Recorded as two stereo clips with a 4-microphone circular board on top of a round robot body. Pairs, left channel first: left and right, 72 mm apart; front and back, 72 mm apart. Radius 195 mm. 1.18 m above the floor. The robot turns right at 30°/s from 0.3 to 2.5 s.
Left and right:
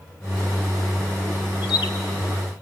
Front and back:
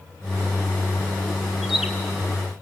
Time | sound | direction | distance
1.6 | a bird | 90° left | 0.8 m